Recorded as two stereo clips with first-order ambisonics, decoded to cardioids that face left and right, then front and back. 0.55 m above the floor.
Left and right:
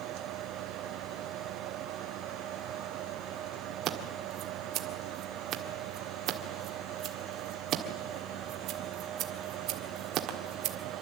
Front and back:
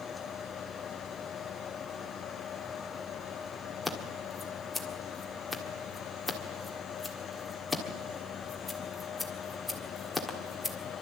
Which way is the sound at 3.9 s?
85° right.